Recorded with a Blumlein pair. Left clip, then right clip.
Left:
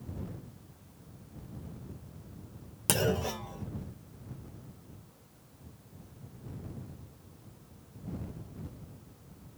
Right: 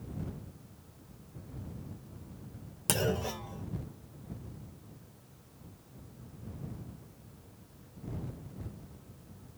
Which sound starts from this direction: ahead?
A clunk, at 2.9 s.